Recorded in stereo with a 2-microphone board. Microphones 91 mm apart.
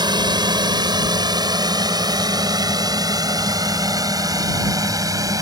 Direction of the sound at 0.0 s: 55° right (ahead or behind).